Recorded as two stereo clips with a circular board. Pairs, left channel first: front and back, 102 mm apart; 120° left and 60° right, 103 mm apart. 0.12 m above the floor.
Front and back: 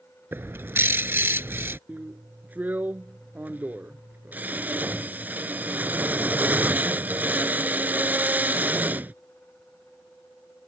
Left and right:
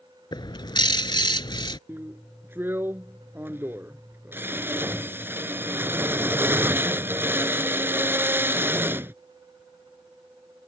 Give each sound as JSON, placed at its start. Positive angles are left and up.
{"t": 0.3, "sound": "a bird", "azimuth_deg": 120}
{"t": 1.9, "sound": "a drill", "azimuth_deg": -115}